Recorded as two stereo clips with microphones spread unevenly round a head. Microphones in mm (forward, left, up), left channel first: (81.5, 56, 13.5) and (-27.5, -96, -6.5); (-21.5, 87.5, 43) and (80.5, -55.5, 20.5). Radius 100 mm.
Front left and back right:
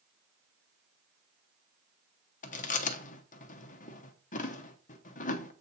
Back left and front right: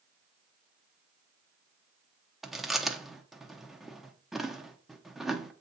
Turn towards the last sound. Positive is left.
turn(degrees=40)